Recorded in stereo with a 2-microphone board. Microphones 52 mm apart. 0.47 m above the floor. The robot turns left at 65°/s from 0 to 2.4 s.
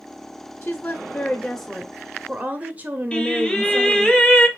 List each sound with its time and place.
0.6 s a woman speaking: 70° left, 0.8 m; by 4.1 s 50° right, 0.8 m
3.1 s singing: 15° left (ahead or behind), 0.9 m